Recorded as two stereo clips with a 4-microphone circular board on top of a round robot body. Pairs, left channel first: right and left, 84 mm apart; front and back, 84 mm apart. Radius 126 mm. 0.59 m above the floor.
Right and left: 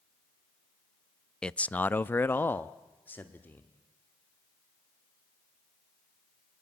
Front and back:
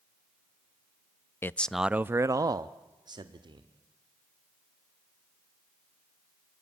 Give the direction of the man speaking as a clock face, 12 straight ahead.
1 o'clock.